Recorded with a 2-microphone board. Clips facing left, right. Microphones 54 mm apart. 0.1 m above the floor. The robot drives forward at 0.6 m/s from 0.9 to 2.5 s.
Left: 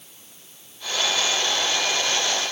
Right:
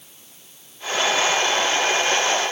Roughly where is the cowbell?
I don't hear a cowbell.